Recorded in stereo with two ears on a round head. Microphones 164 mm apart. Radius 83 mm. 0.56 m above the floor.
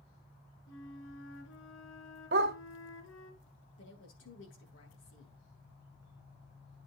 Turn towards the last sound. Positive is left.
turn(degrees=70)  # may be behind; listen again after turning